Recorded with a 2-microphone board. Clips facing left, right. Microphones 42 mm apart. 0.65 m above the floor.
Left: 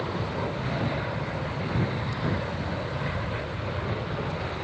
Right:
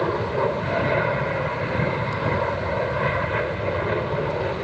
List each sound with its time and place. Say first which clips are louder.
0.0 s an aircraft: right 8 dB; 50° right (ahead or behind)